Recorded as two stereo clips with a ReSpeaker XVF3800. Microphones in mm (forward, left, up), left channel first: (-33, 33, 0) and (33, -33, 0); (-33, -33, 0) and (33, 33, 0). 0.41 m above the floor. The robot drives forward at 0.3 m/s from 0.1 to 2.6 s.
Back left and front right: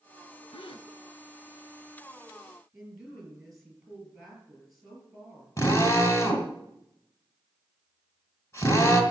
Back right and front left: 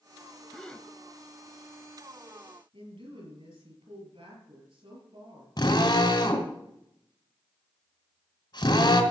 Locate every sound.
0.5 s a gasp: 140° left, 0.6 m; by 0.9 s 145° left, 0.7 m
2.7 s a woman speaking: 40° left, 6.5 m
5.6 s a drill: 170° right, 2 m